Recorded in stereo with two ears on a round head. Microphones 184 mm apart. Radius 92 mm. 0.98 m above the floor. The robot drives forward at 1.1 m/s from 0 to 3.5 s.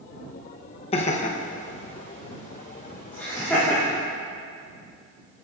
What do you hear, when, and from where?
0.9 s laughter: 30° left (ahead or behind), 0.9 m; by 4.0 s 10° left (ahead or behind), 2.5 m